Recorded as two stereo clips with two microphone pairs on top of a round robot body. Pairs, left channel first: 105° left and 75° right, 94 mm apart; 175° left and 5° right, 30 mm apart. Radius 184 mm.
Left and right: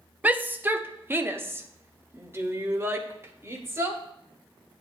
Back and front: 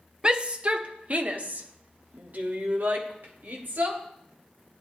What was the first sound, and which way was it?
A shout, 45° right.